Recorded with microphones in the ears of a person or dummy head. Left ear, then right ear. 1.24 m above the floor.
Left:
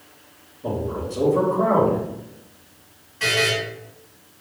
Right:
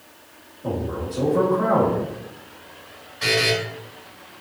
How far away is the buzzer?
About 1.6 m.